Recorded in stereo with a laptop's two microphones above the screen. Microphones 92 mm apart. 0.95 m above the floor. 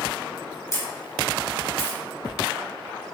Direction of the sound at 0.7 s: 35° left (ahead or behind).